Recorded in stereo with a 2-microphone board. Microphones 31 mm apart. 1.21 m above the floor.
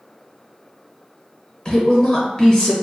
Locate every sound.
1.6 s a woman speaking: 30° left (ahead or behind), 1.0 m